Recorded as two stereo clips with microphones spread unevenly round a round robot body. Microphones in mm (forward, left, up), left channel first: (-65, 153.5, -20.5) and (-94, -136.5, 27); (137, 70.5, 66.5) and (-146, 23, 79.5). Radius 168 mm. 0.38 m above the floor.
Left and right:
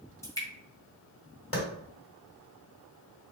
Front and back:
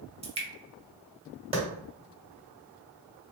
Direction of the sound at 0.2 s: 135° left.